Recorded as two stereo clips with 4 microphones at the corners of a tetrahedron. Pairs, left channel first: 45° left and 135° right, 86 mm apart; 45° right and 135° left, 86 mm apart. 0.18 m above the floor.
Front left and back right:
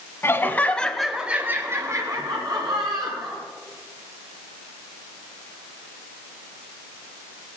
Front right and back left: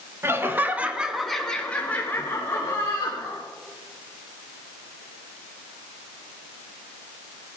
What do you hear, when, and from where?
0.2 s laughter: 95° left, 1.9 m; by 3.4 s 100° right, 3.5 m